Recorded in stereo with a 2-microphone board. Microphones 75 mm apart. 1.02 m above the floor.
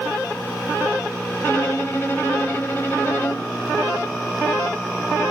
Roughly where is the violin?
Left.